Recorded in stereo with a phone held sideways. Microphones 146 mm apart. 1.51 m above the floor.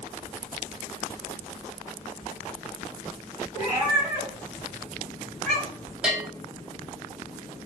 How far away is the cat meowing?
About 1.6 m.